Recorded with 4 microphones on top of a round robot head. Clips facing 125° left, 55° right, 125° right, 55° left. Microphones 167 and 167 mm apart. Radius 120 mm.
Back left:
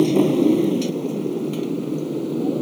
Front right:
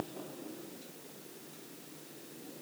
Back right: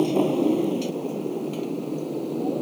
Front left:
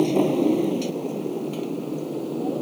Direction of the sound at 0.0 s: 140° left.